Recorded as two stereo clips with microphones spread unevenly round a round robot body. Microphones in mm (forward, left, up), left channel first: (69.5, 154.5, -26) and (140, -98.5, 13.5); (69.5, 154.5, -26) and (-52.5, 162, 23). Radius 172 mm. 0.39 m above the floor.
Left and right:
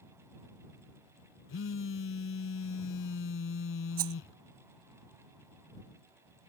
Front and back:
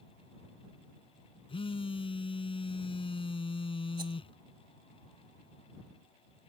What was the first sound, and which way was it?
A phone buzzing, 55° left.